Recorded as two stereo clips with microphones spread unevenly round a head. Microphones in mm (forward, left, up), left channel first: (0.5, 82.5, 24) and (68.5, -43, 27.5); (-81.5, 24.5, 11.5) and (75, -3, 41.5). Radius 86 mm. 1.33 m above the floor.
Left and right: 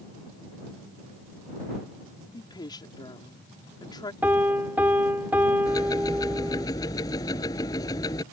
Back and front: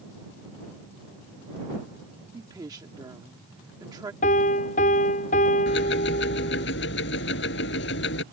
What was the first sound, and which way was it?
A woman speaking, 60° left.